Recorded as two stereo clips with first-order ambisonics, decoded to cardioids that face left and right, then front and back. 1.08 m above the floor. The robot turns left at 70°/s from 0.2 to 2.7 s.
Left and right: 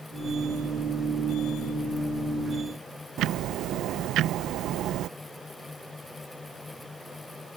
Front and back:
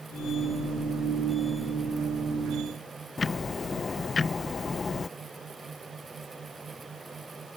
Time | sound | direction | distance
3.2 | ticking | 70° right | ?